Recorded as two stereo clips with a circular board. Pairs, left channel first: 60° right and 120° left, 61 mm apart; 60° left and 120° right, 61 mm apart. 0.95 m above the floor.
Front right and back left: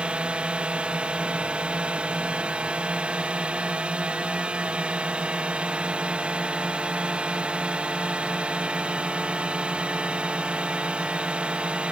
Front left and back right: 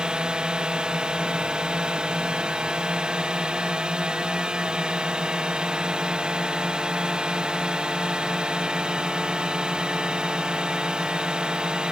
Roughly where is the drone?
Behind.